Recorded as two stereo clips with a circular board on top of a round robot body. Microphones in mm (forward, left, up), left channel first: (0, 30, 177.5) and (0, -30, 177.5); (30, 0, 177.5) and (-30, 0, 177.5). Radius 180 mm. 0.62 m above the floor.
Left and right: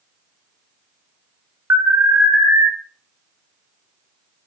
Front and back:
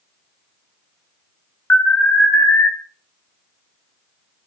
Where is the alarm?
55° right, 0.6 m.